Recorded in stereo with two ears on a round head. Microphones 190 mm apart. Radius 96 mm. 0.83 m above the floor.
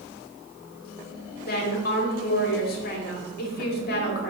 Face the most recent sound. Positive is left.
turn(degrees=45)  # may be behind; listen again after turning